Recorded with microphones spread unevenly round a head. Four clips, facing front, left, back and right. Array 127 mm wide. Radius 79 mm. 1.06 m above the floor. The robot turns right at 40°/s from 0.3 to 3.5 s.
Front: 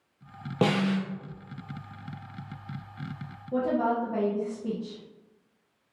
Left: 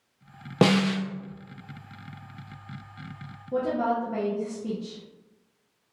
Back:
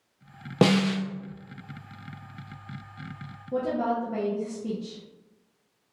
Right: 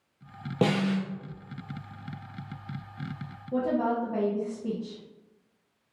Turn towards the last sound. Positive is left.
turn(degrees=-145)